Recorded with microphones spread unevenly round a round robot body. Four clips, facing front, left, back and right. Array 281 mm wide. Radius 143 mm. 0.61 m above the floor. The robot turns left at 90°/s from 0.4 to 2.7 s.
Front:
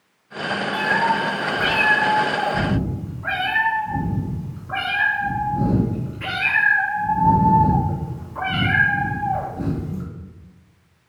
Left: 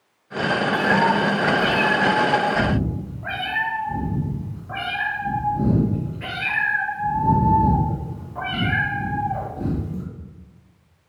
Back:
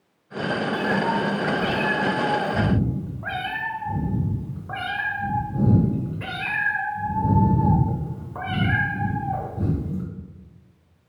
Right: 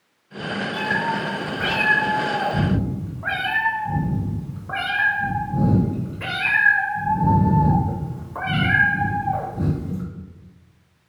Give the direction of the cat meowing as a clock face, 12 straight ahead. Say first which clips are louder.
Left 5 dB, front 4 dB; 10 o'clock.